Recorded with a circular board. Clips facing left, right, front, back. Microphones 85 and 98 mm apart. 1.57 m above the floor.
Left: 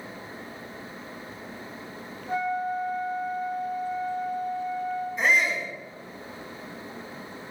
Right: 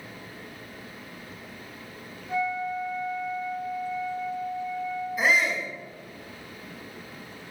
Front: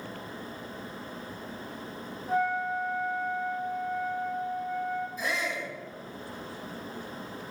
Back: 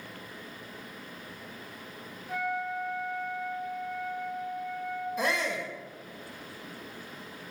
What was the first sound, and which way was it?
A flute, 50° left.